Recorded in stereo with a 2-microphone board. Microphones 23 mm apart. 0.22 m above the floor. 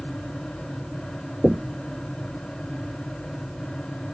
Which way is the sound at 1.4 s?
40° right (ahead or behind).